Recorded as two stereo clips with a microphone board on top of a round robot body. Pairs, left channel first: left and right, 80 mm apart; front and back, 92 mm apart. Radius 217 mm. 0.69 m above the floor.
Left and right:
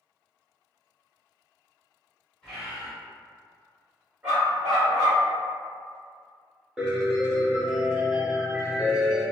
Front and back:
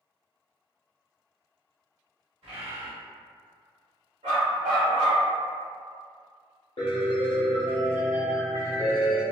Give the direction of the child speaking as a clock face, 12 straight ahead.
No child speaking in this recording.